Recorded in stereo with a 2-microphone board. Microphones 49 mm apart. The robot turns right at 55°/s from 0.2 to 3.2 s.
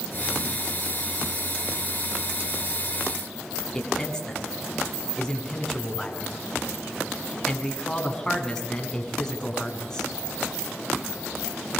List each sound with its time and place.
3.7 s a man speaking: 10° left (ahead or behind), 7 m